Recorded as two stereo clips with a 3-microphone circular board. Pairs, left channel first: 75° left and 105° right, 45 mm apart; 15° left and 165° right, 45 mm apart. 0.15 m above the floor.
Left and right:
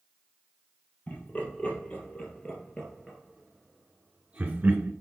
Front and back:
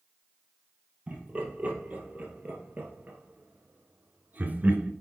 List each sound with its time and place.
1.1 s laughter: 130° left, 3.5 m; by 4.9 s 125° right, 1.5 m